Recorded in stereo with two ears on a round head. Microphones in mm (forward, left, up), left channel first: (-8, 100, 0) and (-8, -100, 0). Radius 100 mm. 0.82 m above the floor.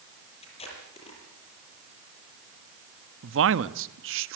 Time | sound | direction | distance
0.4 | tape being pulled | 25° left (ahead or behind) | 7.5 m
3.2 | a man speaking | 60° right (ahead or behind) | 1.1 m